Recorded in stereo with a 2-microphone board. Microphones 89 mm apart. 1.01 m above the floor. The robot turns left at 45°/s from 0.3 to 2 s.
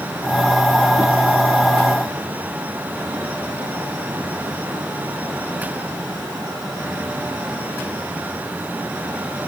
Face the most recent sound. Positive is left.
No sound to turn to.